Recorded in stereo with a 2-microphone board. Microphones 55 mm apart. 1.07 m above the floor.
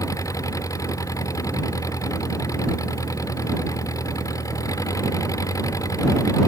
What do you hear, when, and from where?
0.0 s an engine running: 80° left